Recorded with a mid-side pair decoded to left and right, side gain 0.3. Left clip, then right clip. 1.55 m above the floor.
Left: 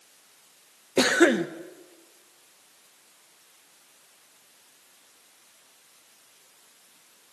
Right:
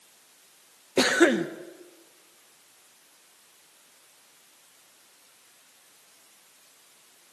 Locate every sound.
1.0 s a cough: 10° left, 1.9 m